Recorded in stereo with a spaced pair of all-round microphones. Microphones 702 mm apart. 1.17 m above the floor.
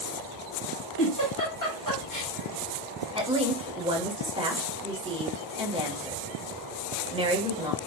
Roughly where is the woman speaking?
Centre.